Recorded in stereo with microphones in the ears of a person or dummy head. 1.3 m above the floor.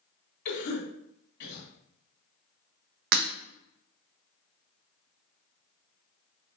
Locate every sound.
0.5 s a cough: 60° left (ahead or behind), 1.7 m
3.1 s breaking glass: 50° right (ahead or behind), 0.8 m